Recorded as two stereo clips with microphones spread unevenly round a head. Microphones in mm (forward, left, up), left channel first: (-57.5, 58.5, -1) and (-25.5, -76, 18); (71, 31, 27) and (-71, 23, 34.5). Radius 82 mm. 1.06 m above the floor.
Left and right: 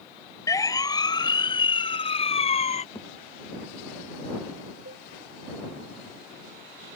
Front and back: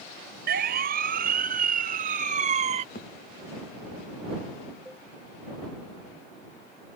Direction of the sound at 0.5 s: 170° left.